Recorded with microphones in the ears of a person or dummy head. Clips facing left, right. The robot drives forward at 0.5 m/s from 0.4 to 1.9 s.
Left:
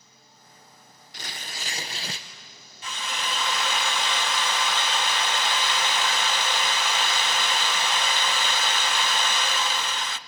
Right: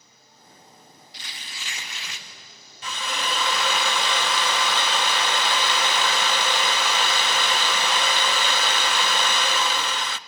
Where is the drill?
65° right (ahead or behind), 0.5 m.